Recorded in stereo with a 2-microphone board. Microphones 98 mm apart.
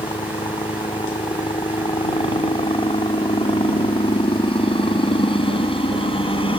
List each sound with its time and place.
0.0 s a helicopter: 70° left (ahead or behind)